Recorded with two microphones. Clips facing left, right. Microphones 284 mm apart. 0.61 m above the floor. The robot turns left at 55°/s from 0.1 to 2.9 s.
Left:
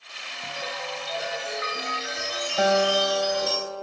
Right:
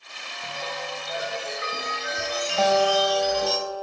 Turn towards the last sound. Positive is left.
turn(degrees=25)  # may be behind; listen again after turning